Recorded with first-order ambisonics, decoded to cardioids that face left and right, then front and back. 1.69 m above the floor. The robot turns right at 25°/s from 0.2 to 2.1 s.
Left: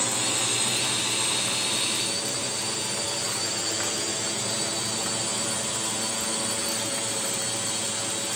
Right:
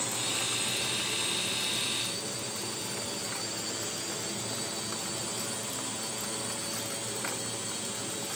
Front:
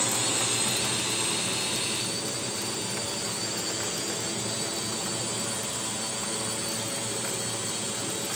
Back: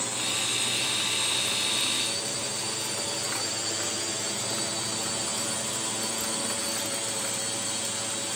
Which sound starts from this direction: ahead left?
A drone, at 0.0 s.